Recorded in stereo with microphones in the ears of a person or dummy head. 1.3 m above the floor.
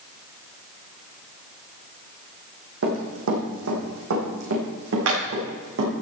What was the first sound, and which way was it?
Running footsteps, 65° right (ahead or behind).